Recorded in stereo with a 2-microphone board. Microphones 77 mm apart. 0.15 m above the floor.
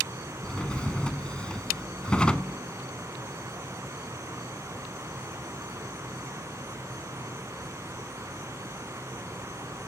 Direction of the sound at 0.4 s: 15° left (ahead or behind).